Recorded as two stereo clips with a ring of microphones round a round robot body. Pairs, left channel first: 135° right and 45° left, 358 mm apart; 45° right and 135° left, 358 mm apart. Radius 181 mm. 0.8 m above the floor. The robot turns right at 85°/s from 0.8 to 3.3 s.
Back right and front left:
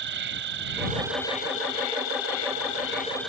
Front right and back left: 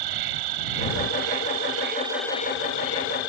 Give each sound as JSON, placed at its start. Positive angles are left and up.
{"t": 0.0, "sound": "an insect", "azimuth_deg": 105}